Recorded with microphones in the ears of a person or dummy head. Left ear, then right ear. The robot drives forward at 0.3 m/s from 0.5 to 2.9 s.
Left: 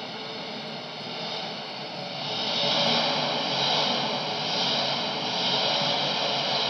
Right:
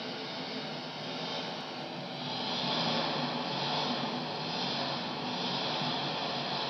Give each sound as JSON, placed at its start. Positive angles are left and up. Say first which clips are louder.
{"t": 0.0, "sound": "an engine running", "louder": "left 4 dB", "side_deg": 20, "distance_m": 1.3}